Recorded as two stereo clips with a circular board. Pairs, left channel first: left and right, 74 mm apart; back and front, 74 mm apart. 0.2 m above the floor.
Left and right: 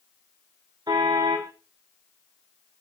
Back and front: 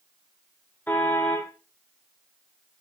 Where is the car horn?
115° right, 4.5 m.